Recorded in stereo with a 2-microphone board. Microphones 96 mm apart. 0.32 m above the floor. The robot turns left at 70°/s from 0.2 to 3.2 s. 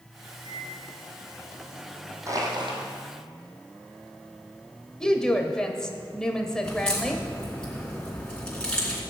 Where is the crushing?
35° right, 3 m; by 2.8 s 70° right, 3 m.